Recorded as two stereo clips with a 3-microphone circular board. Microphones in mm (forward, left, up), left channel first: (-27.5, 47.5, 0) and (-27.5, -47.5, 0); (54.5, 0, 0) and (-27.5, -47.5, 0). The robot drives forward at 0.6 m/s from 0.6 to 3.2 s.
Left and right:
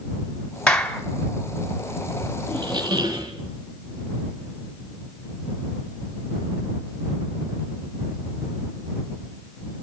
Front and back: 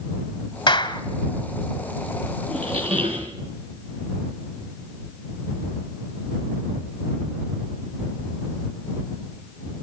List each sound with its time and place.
0.7 s a clap: 10° left, 1.8 m
2.5 s a squeak: 130° right, 3.5 m; by 3.3 s 135° right, 3.5 m